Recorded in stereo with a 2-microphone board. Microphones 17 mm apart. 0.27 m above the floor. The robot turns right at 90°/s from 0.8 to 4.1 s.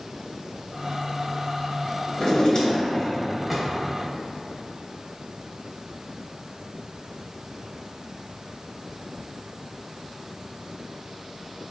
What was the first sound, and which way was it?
A drawer, 70° left.